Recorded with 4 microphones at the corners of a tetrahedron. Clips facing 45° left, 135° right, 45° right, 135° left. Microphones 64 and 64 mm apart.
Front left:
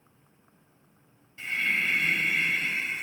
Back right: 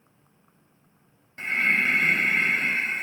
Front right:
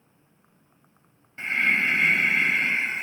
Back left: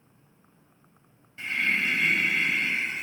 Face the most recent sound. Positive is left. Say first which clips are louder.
# back right 5 dB, front right 4 dB
turn(degrees=-95)